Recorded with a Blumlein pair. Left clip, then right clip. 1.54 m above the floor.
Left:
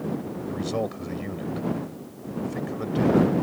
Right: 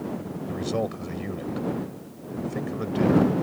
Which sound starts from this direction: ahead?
A man speaking, at 0.5 s.